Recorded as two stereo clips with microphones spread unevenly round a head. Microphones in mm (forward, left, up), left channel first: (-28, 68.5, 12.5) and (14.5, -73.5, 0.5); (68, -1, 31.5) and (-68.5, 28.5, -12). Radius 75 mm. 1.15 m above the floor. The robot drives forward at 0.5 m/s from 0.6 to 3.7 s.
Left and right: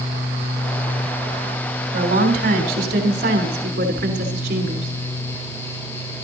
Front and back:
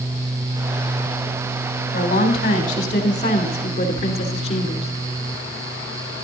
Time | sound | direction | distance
1.9 | a woman speaking | 45° right | 3.5 m